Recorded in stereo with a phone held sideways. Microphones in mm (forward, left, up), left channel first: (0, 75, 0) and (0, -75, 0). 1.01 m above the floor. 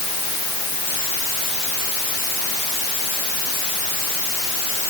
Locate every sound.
Only background noise.